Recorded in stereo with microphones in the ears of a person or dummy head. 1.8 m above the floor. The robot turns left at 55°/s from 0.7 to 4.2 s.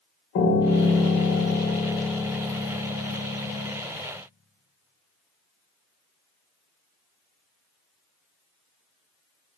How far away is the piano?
About 0.6 m.